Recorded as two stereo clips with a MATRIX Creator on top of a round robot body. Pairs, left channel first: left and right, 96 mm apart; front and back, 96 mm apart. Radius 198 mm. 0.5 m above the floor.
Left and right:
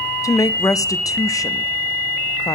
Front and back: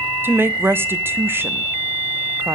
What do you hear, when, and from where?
0.2 s a woman speaking: 125° left, 0.8 m